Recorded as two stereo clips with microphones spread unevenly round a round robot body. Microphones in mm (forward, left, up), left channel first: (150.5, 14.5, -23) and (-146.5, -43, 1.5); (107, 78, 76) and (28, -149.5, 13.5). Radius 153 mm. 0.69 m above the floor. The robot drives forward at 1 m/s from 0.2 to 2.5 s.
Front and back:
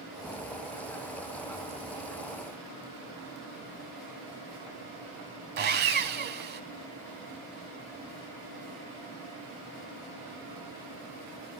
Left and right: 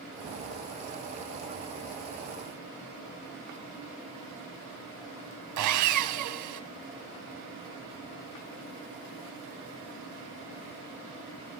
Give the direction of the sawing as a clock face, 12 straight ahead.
4 o'clock.